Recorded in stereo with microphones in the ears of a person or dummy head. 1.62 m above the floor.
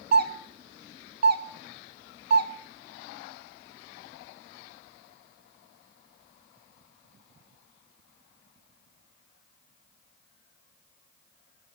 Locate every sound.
0.1 s a doorbell: 50° right (ahead or behind), 0.5 m